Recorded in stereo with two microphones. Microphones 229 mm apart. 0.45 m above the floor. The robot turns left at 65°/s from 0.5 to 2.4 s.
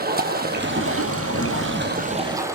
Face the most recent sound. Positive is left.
turn(degrees=-165)